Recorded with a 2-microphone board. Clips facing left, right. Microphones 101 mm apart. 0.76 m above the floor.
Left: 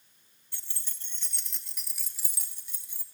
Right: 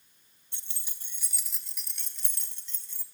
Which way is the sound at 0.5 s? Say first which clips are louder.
Left 1 dB; 25° right (ahead or behind).